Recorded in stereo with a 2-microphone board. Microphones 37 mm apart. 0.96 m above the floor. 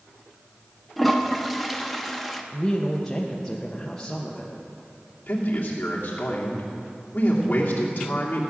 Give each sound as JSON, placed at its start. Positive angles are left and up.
{"t": 1.0, "sound": "a toilet flushing", "side_deg": 0, "distance_m": 0.8}
{"t": 2.5, "sound": "a woman speaking", "side_deg": 10, "distance_m": 0.9}
{"t": 5.3, "sound": "a man speaking", "side_deg": 45, "distance_m": 2.5}